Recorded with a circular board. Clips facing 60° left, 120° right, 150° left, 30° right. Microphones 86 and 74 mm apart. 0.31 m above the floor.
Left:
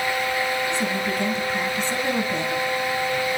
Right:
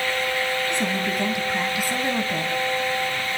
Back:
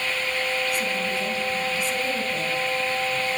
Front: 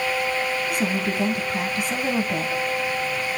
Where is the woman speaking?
50° right, 3.5 m; by 2.5 s 35° right, 2.5 m.